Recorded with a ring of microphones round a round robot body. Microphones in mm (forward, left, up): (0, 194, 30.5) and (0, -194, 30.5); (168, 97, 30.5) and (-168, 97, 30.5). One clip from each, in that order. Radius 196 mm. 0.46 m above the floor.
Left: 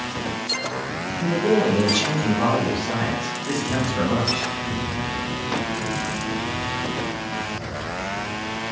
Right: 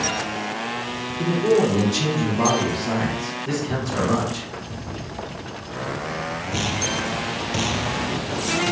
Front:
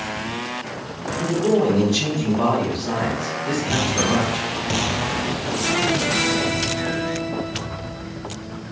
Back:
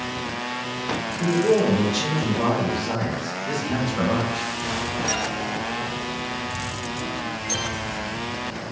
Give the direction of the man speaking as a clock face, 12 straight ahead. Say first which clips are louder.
Right 1 dB, front 1 dB; 2 o'clock.